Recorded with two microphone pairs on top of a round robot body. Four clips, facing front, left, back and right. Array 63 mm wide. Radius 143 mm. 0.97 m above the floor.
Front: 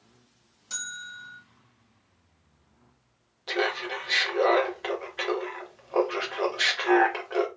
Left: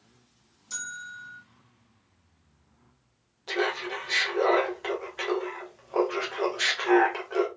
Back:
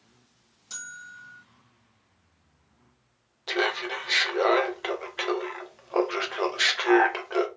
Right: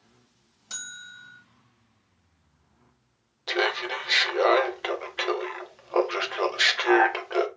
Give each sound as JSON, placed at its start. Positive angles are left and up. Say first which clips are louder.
{"t": 0.7, "sound": "a bell", "louder": "left 4 dB, front 3 dB", "azimuth_deg": -80, "distance_m": 1.3}
{"t": 3.5, "sound": "laughter", "louder": "right 2 dB, back 1 dB", "azimuth_deg": -150, "distance_m": 0.8}